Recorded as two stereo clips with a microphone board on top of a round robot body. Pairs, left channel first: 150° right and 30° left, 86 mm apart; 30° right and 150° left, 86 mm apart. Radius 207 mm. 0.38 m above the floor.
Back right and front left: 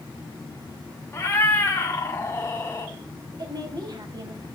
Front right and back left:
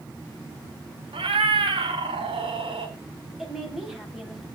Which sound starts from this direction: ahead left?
A woman speaking, at 3.4 s.